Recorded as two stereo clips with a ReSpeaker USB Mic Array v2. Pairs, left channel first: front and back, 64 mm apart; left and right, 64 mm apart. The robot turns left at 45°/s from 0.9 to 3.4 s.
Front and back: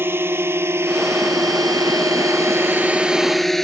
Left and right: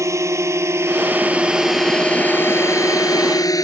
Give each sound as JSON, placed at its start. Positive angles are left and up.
{"t": 0.0, "sound": "a drone", "azimuth_deg": -125}